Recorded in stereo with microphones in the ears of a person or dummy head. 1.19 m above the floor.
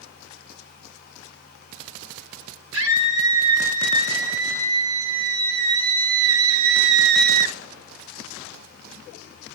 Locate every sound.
2.7 s a scream: 70° right (ahead or behind), 4 m; by 7.6 s 40° right (ahead or behind), 0.9 m